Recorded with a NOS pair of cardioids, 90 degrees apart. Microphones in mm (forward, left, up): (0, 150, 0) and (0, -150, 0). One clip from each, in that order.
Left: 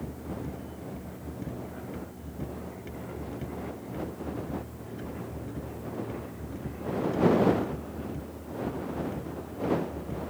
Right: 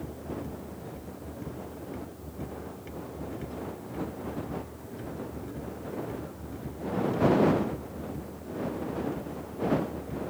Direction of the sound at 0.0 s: 15° left.